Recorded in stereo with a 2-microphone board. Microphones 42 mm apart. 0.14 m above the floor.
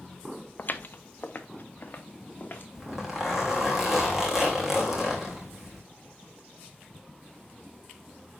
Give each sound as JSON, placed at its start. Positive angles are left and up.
{"t": 0.6, "sound": "footsteps", "side_deg": 45, "distance_m": 0.6}
{"t": 2.8, "sound": "a zipper", "side_deg": -10, "distance_m": 2.5}